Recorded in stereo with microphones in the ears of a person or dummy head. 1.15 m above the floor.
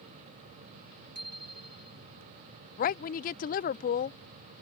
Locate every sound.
1.1 s a bicycle bell: 50° right (ahead or behind)
2.8 s a woman speaking: 35° left (ahead or behind)